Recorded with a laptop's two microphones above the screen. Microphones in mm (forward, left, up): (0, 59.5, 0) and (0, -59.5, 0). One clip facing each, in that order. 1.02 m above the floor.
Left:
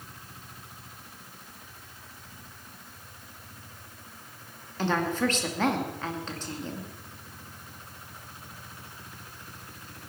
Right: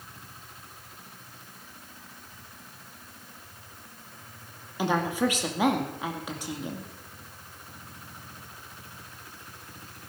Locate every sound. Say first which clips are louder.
4.8 s a woman speaking: right 1 dB; 10° right (ahead or behind), 2 m